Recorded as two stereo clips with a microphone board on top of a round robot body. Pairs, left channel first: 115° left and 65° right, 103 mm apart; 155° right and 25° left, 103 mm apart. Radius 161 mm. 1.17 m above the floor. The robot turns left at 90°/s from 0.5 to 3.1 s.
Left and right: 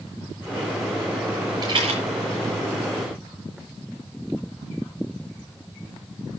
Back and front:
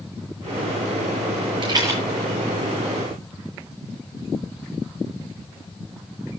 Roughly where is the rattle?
Ahead.